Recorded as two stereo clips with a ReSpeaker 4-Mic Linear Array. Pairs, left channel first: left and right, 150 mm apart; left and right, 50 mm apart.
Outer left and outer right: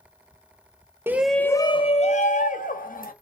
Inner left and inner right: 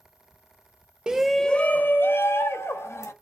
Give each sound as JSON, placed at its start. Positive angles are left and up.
{"t": 1.1, "sound": "a shout", "side_deg": -15, "distance_m": 0.6}